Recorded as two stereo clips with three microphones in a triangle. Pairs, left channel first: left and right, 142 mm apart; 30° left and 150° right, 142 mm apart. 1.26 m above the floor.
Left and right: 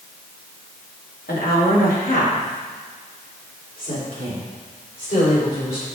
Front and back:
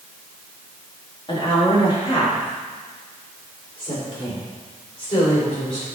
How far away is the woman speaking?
About 1.9 m.